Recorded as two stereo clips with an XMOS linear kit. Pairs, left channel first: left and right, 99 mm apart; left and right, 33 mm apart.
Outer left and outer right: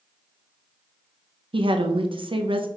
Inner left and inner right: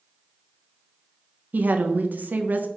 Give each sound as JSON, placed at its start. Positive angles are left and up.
{"t": 1.5, "sound": "a woman speaking", "side_deg": -70, "distance_m": 0.6}